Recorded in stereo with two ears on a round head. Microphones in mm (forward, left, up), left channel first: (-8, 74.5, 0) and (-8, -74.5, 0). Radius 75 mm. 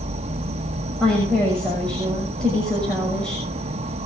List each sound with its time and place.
0.0 s an insect: 40° right (ahead or behind), 0.8 m
1.0 s a woman speaking: 5° left (ahead or behind), 6.5 m